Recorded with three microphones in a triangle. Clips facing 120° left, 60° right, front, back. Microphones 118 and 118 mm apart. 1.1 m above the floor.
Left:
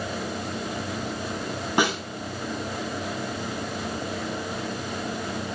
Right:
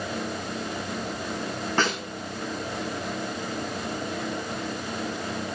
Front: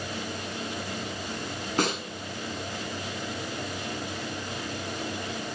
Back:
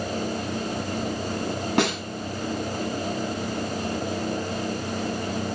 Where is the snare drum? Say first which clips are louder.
Left 3 dB, back 3 dB; 165° right, 8 m.